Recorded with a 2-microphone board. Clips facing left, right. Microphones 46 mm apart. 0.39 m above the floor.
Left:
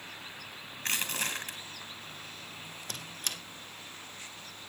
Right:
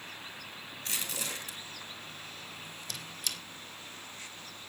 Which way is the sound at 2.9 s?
45° left (ahead or behind).